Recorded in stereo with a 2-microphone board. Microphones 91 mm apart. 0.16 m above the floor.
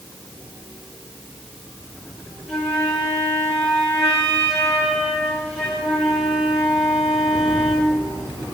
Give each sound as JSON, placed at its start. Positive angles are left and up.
{"t": 2.5, "sound": "a flute", "side_deg": 0, "distance_m": 2.5}